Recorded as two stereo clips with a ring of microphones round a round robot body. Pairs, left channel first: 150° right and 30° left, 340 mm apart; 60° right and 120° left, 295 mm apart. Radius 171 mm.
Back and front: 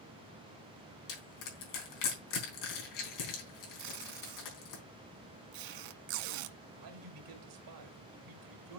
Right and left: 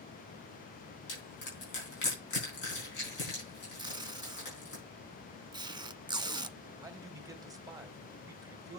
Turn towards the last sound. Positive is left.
turn(degrees=45)